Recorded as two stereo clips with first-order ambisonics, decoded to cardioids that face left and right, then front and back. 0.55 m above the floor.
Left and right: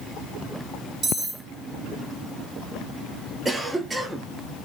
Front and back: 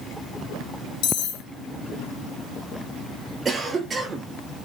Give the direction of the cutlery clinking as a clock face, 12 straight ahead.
1 o'clock.